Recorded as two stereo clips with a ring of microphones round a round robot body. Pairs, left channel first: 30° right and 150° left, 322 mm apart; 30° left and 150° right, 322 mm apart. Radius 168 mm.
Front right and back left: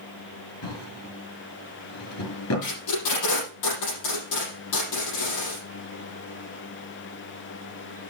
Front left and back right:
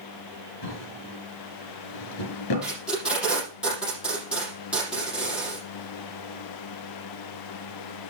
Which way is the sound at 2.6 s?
65° right.